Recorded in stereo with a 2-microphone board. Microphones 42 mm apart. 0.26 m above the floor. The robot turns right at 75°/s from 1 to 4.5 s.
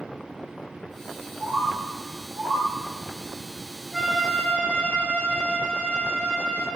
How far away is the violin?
About 4 m.